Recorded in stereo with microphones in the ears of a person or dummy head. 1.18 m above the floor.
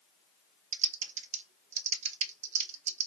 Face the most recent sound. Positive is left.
turn(degrees=-45)  # may be behind; listen again after turning